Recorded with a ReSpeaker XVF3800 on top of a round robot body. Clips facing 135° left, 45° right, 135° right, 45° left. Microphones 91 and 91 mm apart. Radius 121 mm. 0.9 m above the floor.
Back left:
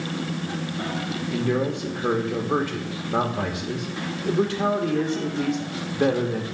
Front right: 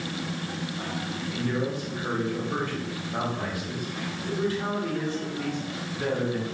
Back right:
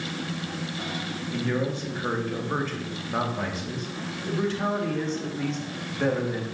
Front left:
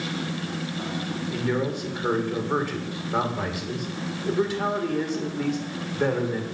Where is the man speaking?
125° left, 1.9 m.